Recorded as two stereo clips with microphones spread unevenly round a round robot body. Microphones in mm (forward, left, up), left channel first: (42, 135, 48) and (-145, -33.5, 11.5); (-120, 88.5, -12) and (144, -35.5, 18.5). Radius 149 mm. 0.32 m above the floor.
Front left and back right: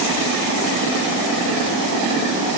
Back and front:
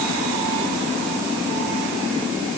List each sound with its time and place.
Only background noise.